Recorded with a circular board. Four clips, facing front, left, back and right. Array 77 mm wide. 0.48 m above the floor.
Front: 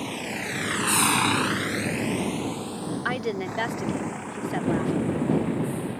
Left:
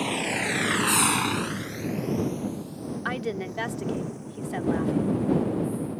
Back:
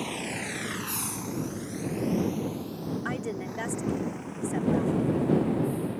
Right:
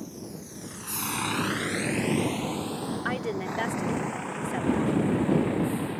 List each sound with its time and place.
0.0 s a vehicle: 90° left; by 6.0 s 65° right
3.0 s a woman speaking: 5° left